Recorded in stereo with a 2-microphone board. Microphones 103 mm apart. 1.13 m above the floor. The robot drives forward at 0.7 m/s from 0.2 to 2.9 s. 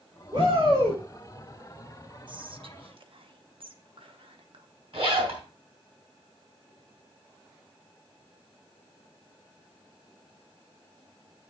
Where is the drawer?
I don't hear a drawer.